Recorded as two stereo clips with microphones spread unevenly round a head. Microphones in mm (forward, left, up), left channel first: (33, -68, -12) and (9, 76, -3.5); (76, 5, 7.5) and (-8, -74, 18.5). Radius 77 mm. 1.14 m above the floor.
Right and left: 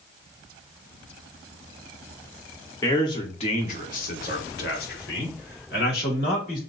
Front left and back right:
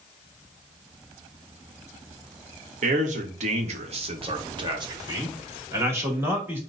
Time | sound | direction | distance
2.8 | a man speaking | 150° right | 1.0 m